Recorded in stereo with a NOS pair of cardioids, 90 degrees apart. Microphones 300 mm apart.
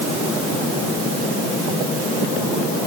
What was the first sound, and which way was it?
Only background noise.